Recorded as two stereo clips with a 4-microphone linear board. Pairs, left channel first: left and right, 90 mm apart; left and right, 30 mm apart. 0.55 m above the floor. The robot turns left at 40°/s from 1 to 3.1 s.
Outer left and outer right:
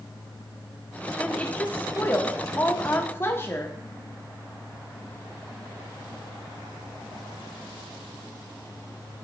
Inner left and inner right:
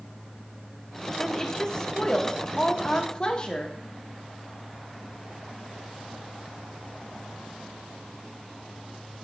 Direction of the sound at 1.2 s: 10° left (ahead or behind).